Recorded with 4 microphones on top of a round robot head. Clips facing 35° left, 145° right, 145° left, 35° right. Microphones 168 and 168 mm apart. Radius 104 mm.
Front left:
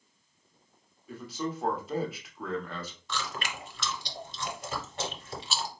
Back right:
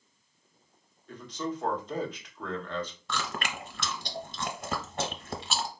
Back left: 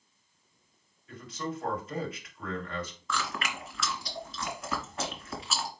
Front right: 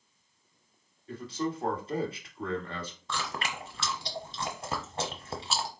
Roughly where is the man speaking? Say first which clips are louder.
Even, front right 4 dB; ahead right.